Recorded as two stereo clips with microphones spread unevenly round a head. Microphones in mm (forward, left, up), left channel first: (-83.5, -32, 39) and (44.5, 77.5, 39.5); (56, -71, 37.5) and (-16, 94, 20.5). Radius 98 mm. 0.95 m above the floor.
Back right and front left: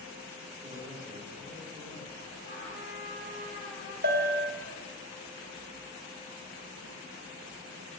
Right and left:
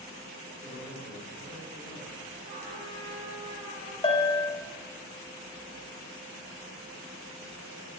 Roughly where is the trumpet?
Behind.